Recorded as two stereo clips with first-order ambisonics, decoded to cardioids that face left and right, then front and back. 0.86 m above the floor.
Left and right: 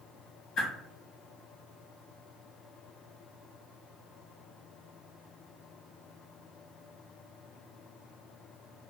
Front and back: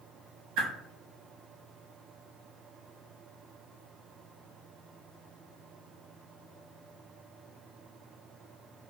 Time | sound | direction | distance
0.6 | a whoosh | 145° left | 0.9 m